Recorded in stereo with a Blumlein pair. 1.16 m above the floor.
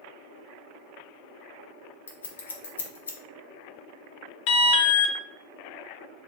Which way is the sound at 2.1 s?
70° left.